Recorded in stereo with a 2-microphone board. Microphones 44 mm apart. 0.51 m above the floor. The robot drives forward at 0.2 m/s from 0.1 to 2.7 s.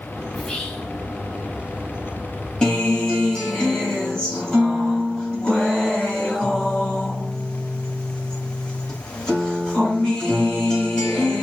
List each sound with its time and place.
0.3 s whispering: 15° left (ahead or behind), 0.8 m
2.6 s a guitar: 15° left (ahead or behind), 1.3 m